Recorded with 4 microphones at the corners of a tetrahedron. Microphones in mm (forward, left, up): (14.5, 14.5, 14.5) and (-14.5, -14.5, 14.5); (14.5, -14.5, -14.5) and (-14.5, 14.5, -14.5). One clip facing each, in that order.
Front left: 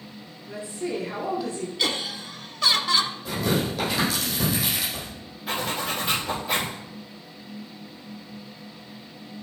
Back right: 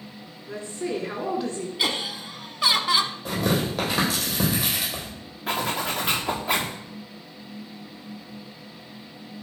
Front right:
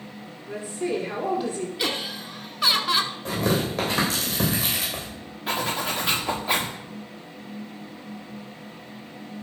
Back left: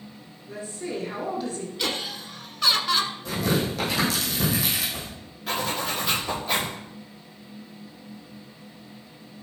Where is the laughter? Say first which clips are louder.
Back right 1 dB, back left 1 dB; 100° right, 1.0 m.